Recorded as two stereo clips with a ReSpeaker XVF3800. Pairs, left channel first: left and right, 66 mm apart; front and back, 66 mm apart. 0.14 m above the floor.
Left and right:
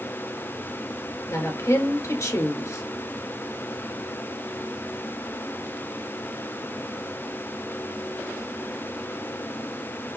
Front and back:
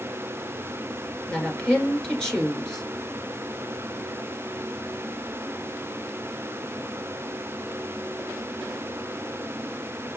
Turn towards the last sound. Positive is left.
turn(degrees=80)